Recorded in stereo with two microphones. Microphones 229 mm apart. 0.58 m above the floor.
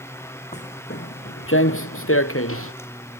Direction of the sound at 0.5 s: 30° left (ahead or behind).